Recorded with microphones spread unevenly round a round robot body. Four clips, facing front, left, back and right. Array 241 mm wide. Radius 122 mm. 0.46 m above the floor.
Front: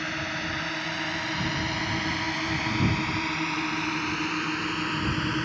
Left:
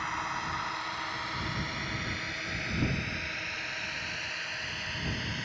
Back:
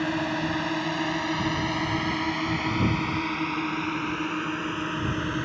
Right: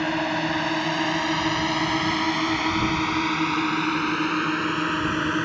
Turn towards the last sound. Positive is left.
turn(degrees=-70)